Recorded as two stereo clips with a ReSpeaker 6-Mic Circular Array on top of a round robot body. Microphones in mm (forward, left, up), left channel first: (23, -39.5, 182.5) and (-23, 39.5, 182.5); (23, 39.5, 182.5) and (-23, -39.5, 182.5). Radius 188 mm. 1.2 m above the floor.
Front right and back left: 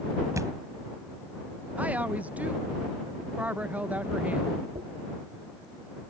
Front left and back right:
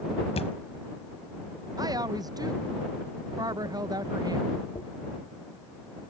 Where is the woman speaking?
165° right.